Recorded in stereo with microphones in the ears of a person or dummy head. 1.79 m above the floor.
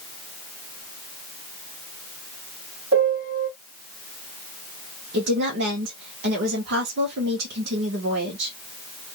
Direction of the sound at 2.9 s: 45° right (ahead or behind).